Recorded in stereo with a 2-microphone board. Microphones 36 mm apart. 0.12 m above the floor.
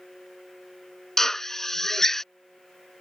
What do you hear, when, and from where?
1.2 s a drill: 15° left (ahead or behind)